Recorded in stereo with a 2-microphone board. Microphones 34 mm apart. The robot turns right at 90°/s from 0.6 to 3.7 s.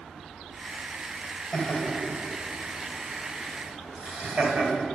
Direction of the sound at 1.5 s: 45° left (ahead or behind).